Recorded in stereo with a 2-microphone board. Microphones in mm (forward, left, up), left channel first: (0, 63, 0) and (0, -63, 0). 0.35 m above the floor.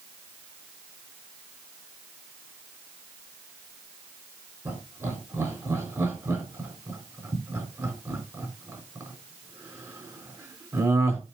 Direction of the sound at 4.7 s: 20° right (ahead or behind).